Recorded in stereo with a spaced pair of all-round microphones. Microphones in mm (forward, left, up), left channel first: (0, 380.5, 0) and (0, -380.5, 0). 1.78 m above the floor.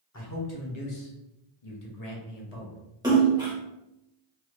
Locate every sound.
0.1 s a man speaking: 20° left (ahead or behind), 0.9 m; by 2.8 s 50° left (ahead or behind), 1.3 m
3.0 s a splash: 5° right (ahead or behind), 1.1 m